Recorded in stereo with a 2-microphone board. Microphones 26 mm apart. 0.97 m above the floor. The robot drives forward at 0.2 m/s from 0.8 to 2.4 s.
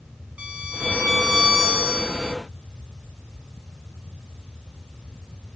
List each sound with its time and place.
0.4 s a violin: 65° right (ahead or behind), 1.5 m